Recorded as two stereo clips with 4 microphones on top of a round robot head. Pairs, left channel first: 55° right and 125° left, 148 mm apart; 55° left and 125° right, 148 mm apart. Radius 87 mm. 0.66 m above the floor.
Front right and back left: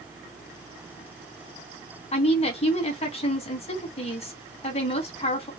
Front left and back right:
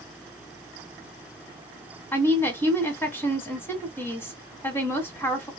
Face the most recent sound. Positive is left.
turn(degrees=-15)